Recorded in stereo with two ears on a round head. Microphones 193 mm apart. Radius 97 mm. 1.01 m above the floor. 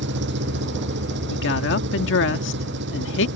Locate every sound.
0.0 s an engine running: 55° right (ahead or behind)
1.3 s a woman speaking: 60° left (ahead or behind)